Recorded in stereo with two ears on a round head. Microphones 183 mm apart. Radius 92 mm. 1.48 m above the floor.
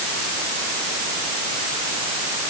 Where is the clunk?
No clunk in this recording.